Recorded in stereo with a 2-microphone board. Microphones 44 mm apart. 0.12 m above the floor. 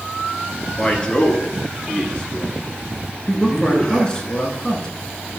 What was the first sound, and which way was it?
A man speaking, 20° left (ahead or behind).